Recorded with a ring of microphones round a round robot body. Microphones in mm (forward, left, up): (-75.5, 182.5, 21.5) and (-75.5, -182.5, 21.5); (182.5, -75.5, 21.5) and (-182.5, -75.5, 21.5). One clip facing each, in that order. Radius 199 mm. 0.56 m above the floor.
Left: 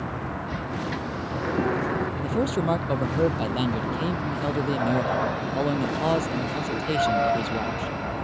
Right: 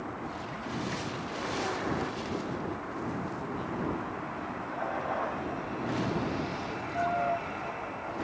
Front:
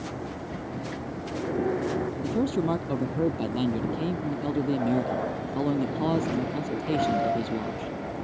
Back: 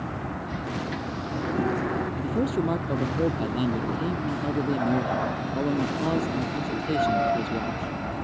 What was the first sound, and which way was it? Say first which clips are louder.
A vehicle: left 6 dB, back 1 dB; 115° left.